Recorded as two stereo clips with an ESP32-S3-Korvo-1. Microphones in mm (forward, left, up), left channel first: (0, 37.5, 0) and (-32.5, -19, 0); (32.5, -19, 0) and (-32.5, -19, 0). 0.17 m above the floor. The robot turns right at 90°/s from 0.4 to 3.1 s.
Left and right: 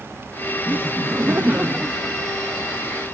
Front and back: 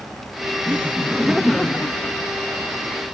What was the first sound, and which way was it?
Laughter, 155° right.